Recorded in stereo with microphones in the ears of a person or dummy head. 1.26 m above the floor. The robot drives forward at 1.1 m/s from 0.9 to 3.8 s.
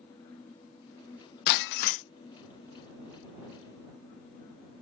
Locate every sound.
1.5 s breaking glass: 50° left (ahead or behind); by 2.0 s 35° left (ahead or behind)